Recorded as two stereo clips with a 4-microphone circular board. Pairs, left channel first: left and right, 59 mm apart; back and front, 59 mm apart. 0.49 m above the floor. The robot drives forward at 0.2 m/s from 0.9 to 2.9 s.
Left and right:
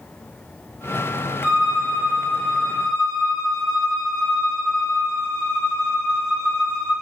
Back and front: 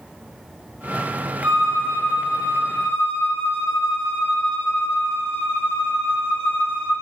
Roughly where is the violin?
Ahead left.